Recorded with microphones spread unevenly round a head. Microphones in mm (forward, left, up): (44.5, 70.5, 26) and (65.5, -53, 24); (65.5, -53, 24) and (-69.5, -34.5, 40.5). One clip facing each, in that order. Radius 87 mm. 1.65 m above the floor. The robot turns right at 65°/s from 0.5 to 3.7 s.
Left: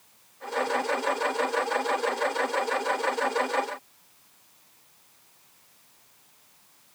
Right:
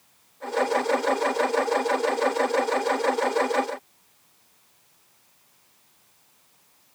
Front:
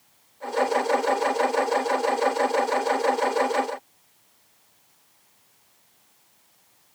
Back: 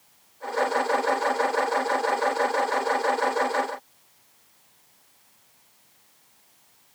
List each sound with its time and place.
Only background noise.